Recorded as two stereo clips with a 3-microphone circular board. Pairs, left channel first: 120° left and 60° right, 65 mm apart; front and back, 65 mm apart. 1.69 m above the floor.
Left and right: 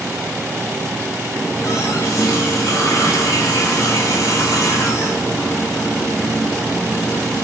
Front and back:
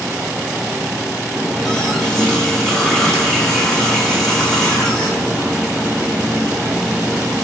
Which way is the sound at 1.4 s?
80° left.